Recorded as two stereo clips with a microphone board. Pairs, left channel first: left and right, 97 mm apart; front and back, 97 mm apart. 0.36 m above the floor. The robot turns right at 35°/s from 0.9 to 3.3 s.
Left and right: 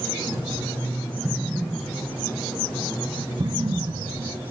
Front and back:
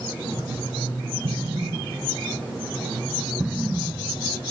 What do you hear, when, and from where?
1.2 s an explosion: 165° right, 1.7 m; by 4.4 s 95° right, 1.7 m